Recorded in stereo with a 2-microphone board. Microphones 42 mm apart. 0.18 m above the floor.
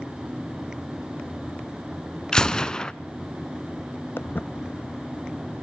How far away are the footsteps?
About 0.7 m.